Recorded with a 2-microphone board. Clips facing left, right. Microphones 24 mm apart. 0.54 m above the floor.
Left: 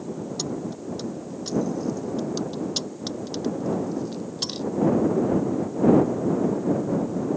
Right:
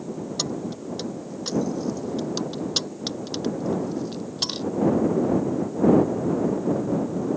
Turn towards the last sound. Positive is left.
turn(degrees=-20)  # may be behind; listen again after turning